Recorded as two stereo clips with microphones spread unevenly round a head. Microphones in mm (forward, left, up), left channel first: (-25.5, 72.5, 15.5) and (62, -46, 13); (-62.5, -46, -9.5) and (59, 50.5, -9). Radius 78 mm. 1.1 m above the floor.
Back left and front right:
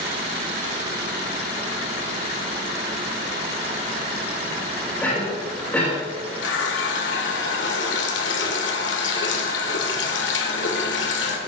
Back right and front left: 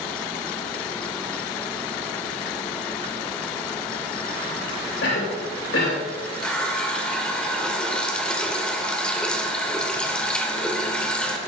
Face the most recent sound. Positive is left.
turn(degrees=135)